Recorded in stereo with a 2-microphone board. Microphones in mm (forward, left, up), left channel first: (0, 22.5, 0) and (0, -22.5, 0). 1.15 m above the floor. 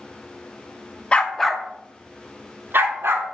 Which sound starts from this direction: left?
A dog barking, at 1.1 s.